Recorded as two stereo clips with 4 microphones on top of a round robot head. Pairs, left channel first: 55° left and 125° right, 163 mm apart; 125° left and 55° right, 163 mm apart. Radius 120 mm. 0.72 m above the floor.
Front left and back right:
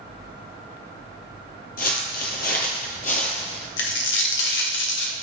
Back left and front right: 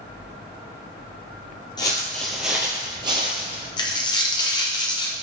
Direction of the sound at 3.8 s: 60° left.